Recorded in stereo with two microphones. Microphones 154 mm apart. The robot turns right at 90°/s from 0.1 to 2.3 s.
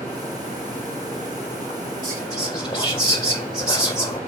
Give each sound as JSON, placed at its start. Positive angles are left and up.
{"t": 2.0, "sound": "whispering", "side_deg": 15, "distance_m": 2.0}